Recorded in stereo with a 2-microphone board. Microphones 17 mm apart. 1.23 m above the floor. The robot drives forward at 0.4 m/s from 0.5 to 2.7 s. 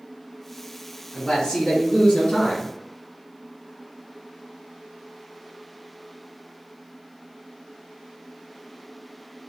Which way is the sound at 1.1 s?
55° left (ahead or behind).